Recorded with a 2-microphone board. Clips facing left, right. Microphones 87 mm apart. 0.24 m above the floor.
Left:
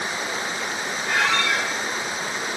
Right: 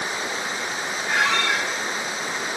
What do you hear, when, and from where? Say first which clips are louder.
1.1 s a squeak: even; 5° right (ahead or behind), 2 m